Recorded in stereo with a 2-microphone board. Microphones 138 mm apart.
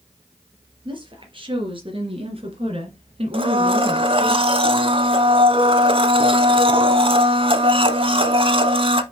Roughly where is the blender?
Right.